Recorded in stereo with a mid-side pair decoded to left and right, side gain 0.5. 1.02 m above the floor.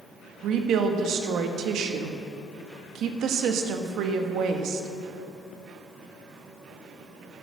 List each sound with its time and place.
0.4 s a woman speaking: 70° right, 1.4 m